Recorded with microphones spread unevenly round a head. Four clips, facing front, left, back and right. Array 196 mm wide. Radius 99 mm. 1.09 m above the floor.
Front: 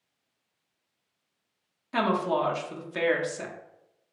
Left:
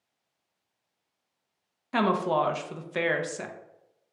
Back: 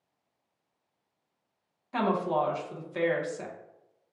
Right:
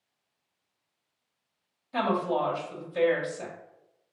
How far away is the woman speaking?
About 0.8 m.